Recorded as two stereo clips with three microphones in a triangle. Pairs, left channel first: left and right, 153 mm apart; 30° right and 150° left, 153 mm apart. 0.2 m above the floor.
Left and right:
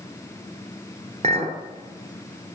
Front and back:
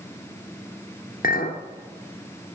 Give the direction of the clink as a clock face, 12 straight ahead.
2 o'clock.